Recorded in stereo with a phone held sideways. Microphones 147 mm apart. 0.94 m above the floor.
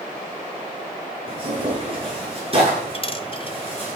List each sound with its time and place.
1.3 s tearing paper: 40° right (ahead or behind), 9 m
2.9 s a dropped coin: 40° left (ahead or behind), 1.0 m